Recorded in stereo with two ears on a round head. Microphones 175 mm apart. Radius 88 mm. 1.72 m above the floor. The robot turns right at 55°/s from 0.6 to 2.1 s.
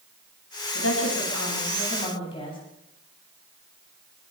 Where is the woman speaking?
75° left, 9.5 m; by 2.6 s 150° left, 9.5 m.